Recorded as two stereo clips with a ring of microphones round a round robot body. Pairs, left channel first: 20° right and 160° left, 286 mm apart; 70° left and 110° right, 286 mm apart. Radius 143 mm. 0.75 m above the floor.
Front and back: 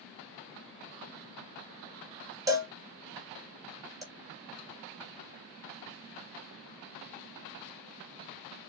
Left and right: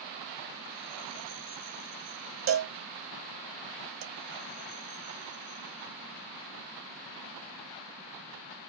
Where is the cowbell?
130° right, 1.3 m.